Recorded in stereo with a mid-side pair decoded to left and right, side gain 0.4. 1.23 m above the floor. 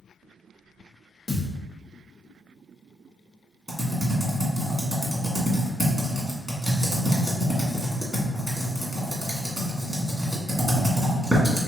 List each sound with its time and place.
1.3 s a thud: 35° left, 1.7 m
3.7 s typing on a keyboard: 5° right, 1.9 m